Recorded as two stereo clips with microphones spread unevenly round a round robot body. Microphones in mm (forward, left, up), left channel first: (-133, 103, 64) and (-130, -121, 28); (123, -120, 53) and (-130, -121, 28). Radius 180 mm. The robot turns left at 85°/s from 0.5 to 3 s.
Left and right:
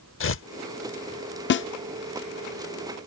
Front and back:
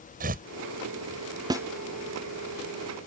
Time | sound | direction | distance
0.2 | tearing paper | 120° left | ?
1.5 | a snare drum | 115° left | ?